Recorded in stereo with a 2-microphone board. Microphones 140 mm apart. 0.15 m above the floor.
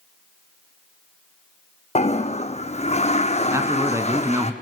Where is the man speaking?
20° right (ahead or behind), 1.6 m.